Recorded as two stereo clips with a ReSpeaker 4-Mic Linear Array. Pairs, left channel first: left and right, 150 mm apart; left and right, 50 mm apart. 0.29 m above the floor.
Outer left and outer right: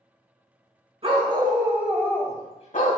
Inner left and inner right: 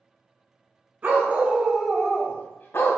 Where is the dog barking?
40° right (ahead or behind), 1.1 m; by 3.0 s 65° left (ahead or behind), 0.9 m.